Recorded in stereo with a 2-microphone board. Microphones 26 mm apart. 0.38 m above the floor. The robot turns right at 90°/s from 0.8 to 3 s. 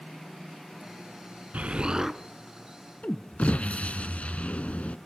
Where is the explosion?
70° right, 1.0 m; by 5.0 s 60° left, 1.0 m.